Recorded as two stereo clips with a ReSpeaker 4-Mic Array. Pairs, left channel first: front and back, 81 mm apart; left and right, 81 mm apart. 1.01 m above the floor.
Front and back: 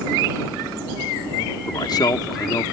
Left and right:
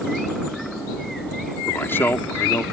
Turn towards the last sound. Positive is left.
turn(degrees=30)